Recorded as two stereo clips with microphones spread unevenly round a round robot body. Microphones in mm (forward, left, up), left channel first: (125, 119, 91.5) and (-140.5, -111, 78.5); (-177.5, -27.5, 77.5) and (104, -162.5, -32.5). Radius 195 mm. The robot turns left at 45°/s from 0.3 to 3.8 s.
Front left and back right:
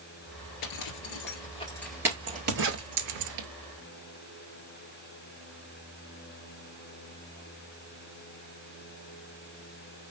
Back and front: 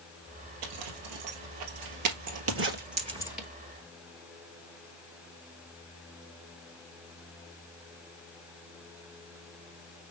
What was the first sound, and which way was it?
A zipper, 10° left.